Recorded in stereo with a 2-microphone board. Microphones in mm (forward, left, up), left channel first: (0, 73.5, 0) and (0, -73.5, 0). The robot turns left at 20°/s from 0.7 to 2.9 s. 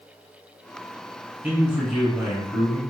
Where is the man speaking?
10° right (ahead or behind), 1.7 m; by 2.8 s 5° left (ahead or behind), 1.7 m.